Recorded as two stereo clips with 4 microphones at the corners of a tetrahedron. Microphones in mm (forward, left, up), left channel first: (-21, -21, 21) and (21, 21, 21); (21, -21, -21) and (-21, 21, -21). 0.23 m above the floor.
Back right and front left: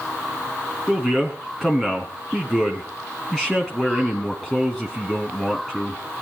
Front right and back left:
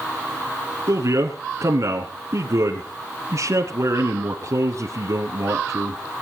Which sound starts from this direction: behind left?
A man speaking, at 0.9 s.